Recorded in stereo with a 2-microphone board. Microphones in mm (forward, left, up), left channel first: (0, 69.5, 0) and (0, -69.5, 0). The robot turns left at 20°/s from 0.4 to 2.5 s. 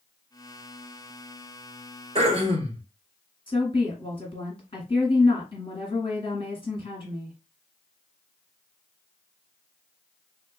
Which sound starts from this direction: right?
Throat clearing, at 2.1 s.